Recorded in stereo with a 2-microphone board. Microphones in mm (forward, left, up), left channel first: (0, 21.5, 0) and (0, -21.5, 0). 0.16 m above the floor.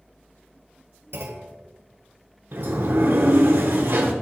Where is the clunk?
65° right (ahead or behind), 1.0 m.